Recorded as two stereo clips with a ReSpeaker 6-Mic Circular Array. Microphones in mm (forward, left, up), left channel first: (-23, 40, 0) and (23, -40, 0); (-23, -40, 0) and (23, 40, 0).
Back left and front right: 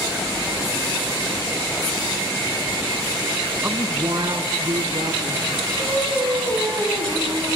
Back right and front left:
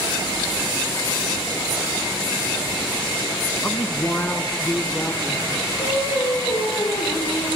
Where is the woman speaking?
105° right, 1.1 m; by 5.5 s 50° right, 3 m.